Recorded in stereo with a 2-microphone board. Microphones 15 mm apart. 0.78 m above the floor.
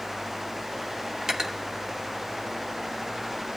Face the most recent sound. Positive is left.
turn(degrees=-20)  # may be behind; listen again after turning